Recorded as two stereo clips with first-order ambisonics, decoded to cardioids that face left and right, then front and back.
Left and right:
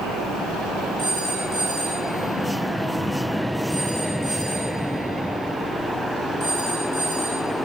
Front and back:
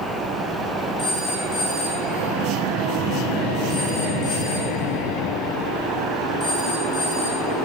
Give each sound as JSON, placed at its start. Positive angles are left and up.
{"t": 1.0, "sound": "a phone ringing", "azimuth_deg": -35, "distance_m": 5.0}